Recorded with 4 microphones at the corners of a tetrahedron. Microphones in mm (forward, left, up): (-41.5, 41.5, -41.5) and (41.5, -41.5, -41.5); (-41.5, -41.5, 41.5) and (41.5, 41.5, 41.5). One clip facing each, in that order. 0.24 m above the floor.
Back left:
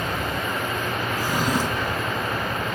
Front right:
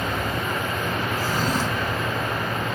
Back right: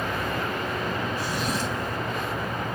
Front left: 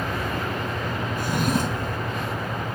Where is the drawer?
60° left, 0.6 m.